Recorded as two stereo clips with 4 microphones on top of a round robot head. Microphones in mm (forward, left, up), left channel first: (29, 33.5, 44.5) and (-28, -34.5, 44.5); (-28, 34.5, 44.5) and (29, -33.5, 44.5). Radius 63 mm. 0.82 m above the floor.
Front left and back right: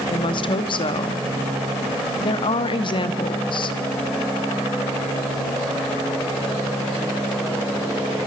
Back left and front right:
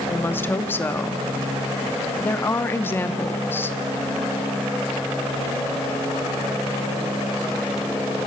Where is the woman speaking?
65° left, 1.8 m.